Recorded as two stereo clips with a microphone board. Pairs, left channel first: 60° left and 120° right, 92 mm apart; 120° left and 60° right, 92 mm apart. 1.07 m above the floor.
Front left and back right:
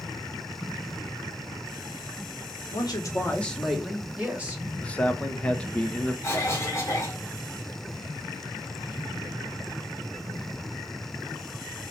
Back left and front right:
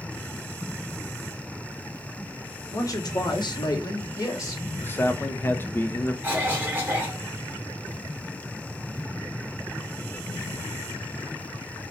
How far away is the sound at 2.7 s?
About 0.8 m.